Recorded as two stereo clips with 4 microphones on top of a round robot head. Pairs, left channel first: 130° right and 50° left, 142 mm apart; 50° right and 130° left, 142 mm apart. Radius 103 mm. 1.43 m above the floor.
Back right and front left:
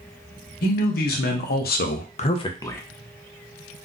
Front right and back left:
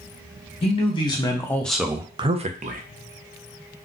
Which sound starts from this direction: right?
A man speaking, at 0.6 s.